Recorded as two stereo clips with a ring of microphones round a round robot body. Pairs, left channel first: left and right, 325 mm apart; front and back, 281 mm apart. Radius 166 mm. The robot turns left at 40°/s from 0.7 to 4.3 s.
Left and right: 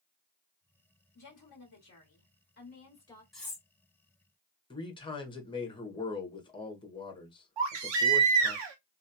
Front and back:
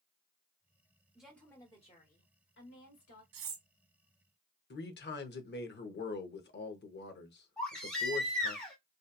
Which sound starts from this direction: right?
A baby crying, at 7.6 s.